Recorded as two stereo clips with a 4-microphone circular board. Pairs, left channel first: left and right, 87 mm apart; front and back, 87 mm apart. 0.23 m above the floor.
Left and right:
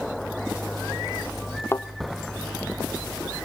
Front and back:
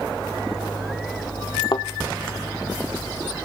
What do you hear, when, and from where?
1.7 s a thud: 30° left, 1.0 m